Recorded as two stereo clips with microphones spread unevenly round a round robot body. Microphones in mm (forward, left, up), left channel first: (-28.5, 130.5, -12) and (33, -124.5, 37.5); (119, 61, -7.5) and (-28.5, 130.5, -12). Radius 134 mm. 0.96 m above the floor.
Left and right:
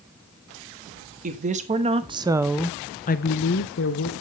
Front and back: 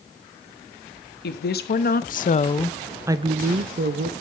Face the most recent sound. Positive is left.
turn(degrees=140)